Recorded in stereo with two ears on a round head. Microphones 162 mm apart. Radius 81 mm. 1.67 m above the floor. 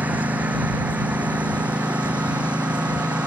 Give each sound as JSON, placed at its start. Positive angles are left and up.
{"t": 0.0, "sound": "a lawn mower", "side_deg": -10}